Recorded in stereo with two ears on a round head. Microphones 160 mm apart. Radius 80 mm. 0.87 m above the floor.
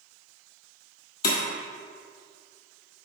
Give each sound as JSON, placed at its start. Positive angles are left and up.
{"t": 1.2, "sound": "breaking glass", "side_deg": 60, "distance_m": 1.8}